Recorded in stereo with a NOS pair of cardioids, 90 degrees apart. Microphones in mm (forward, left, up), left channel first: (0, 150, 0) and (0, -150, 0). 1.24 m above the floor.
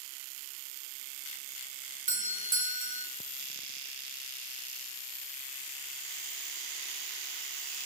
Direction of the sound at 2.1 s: 30° right.